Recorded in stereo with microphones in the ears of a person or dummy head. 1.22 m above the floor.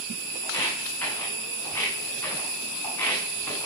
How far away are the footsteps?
About 7 m.